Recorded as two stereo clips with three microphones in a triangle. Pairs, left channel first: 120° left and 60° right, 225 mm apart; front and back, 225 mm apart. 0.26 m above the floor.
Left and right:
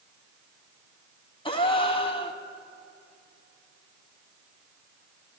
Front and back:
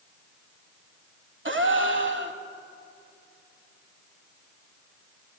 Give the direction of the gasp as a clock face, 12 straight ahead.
6 o'clock.